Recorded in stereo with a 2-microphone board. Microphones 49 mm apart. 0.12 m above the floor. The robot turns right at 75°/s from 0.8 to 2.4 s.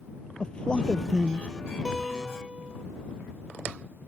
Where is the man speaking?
155° left; by 1.5 s 150° right.